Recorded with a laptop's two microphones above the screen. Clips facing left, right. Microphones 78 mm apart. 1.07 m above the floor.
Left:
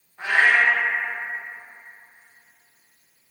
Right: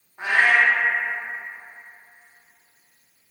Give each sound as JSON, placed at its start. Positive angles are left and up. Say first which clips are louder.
{"t": 0.2, "sound": "a cat meowing", "louder": "even", "side_deg": -20, "distance_m": 0.6}